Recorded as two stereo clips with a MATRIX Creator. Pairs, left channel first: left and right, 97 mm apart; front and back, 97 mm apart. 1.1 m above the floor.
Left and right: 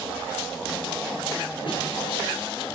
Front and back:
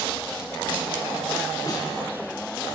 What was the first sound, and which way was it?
A snare drum, 60° left.